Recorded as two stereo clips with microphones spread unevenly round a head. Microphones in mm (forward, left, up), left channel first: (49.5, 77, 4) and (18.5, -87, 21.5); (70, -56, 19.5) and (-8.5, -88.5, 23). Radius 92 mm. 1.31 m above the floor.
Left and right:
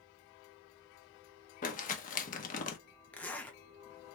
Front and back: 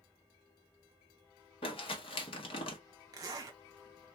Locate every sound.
1.6 s crumpling: 40° left, 0.8 m
3.1 s a zipper: 155° left, 0.6 m